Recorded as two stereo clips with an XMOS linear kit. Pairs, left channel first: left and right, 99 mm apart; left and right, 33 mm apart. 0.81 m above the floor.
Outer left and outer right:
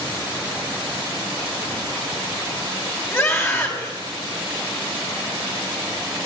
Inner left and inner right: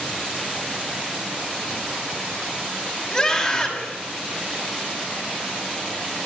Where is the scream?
25° left (ahead or behind), 5.5 m.